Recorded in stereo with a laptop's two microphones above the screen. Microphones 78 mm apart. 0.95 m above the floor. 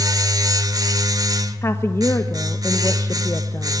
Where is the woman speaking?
35° left (ahead or behind), 1.0 m.